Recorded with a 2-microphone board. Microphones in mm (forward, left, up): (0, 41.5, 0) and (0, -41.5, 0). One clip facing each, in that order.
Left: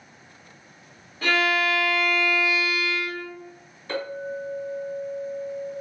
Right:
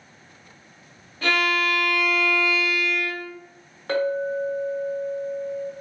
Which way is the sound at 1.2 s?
5° left (ahead or behind).